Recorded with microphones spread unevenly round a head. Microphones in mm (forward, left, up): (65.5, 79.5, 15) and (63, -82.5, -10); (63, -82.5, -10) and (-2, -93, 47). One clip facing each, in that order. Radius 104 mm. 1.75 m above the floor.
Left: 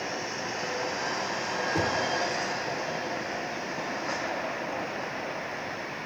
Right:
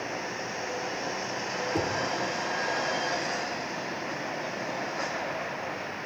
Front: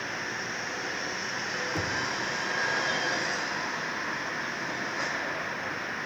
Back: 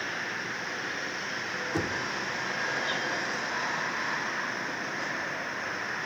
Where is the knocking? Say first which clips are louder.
Left 1 dB, back 2 dB; 175° right, 3 m.